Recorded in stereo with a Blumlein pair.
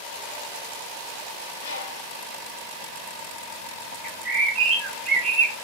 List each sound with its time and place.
1.6 s a bird: 65° left, 0.7 m
4.0 s a bird: 30° right, 1.0 m